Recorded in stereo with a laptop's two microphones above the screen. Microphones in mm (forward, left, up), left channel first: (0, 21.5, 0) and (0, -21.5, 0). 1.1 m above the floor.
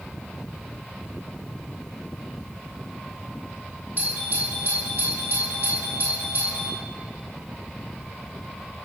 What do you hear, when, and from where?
4.0 s a doorbell: 45° right (ahead or behind), 3 m